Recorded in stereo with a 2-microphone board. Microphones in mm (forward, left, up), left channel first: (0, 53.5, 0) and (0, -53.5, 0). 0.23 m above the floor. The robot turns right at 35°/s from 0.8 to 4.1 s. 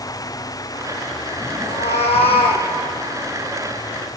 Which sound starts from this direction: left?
A cat meowing, at 1.6 s.